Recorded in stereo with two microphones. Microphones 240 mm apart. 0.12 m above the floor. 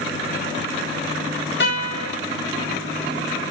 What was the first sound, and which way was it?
A guitar, 45° left (ahead or behind).